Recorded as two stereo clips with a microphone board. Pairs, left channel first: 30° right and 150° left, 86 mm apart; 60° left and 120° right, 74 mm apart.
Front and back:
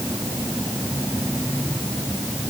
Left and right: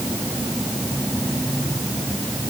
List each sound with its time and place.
Only background noise.